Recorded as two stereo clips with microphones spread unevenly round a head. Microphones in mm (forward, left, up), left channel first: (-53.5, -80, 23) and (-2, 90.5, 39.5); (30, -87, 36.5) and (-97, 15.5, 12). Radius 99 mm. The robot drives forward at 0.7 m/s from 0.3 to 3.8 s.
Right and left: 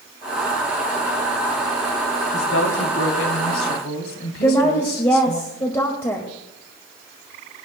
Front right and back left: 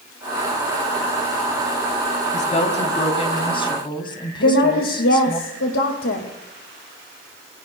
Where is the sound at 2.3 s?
85° right, 3 m; by 5.4 s 100° right, 3 m.